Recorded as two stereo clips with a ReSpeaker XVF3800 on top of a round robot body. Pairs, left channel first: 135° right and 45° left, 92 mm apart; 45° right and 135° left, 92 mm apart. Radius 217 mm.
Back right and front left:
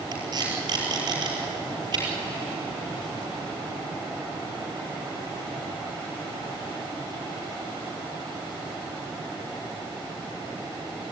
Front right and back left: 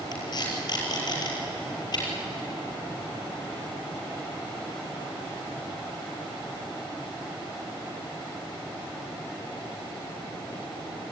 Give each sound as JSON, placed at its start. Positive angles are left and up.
{"t": 0.1, "sound": "tape being pulled", "azimuth_deg": 0, "distance_m": 5.5}